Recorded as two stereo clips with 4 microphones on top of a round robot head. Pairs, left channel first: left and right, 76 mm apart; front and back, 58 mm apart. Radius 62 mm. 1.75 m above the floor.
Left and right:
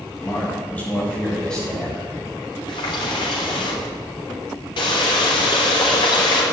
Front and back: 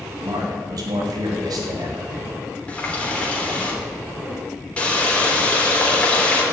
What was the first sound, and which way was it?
A man speaking, 160° left.